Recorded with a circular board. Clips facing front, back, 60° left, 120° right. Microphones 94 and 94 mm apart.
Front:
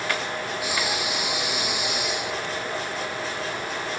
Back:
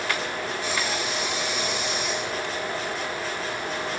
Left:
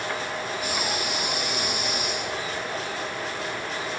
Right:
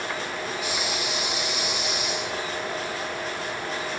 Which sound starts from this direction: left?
Breathing, at 0.6 s.